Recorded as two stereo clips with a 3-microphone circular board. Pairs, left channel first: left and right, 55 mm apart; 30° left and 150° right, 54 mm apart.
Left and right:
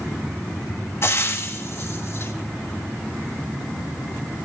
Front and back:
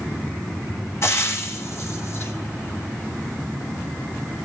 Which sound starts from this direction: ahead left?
Frying, at 1.0 s.